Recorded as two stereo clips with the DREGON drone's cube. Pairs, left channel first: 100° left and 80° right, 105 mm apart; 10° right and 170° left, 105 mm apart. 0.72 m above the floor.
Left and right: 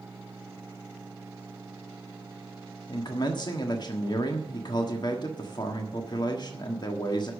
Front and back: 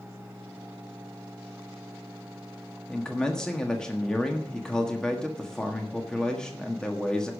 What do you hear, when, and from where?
2.9 s a man speaking: 70° left, 1.4 m